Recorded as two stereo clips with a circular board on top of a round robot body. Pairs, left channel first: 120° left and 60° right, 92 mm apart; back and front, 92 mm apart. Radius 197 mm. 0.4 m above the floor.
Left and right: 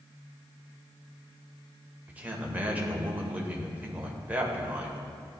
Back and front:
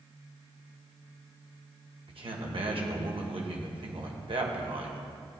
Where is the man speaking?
15° left, 2 m.